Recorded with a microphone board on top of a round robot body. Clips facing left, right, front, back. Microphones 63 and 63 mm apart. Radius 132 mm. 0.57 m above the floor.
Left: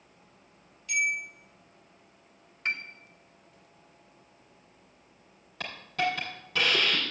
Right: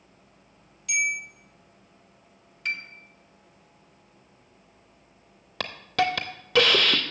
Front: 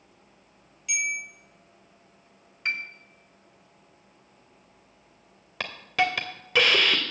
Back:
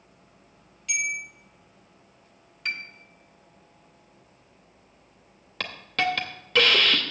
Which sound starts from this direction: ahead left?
A piano, at 2.6 s.